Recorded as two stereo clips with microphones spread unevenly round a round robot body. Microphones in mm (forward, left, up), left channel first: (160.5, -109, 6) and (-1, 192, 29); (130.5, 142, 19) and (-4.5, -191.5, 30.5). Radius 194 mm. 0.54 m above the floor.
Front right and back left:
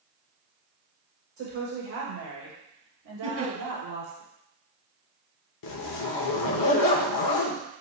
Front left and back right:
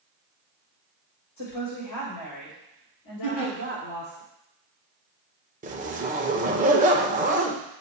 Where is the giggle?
70° left, 3.5 m.